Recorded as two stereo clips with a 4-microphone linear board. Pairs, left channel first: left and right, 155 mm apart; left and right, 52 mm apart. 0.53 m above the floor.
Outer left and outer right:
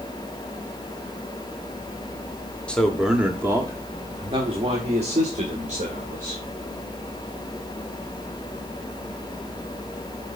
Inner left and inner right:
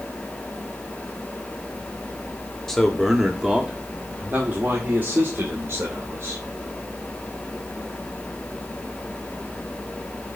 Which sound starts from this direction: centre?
A man speaking, at 2.7 s.